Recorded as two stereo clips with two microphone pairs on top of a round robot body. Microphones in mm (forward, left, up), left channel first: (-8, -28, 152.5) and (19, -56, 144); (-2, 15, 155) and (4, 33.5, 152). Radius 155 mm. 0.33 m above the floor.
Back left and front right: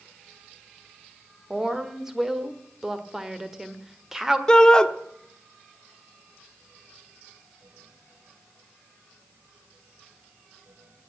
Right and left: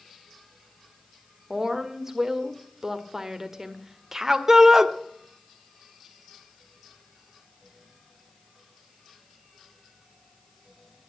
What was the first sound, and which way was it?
A woman speaking, 20° left.